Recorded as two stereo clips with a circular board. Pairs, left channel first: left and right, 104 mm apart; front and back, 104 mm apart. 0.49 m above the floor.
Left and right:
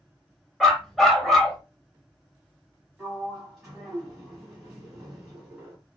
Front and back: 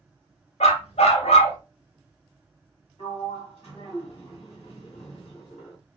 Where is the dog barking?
Straight ahead, 0.7 m.